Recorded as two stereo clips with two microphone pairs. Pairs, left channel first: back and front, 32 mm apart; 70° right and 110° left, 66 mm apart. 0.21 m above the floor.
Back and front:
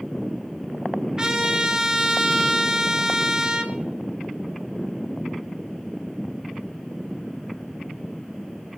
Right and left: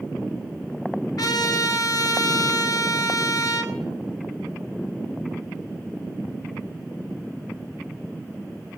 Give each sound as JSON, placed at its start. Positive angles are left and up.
{"t": 1.2, "sound": "a trumpet", "azimuth_deg": -70, "distance_m": 1.6}